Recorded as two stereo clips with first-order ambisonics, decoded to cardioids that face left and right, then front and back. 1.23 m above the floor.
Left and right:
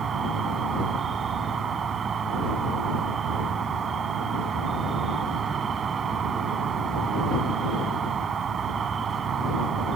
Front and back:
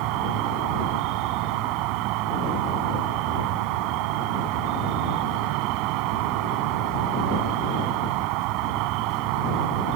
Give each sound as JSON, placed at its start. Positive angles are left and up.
{"t": 0.0, "sound": "an insect", "azimuth_deg": -155}